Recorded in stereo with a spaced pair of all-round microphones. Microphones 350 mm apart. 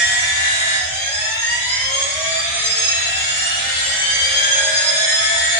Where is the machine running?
60° right (ahead or behind), 1.0 m.